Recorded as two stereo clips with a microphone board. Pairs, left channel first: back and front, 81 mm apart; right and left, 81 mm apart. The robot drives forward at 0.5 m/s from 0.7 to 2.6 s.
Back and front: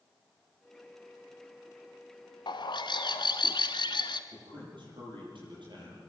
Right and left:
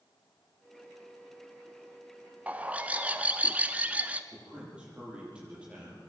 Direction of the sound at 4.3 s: 15° left.